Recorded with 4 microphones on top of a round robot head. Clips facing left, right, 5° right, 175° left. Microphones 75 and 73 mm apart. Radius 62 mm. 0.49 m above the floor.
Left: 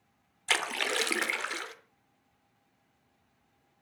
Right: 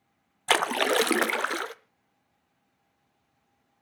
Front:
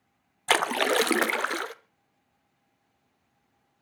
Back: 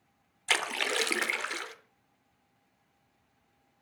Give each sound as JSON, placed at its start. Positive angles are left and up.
{"t": 0.5, "sound": "a splash", "azimuth_deg": -50, "distance_m": 0.6}